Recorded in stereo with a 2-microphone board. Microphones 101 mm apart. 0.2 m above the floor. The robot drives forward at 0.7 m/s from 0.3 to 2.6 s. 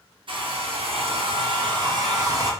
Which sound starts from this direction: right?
A hair dryer, at 0.3 s.